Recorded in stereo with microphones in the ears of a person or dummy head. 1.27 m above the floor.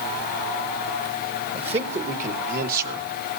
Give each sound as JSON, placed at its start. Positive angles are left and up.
{"t": 1.5, "sound": "a man speaking", "side_deg": -30, "distance_m": 1.6}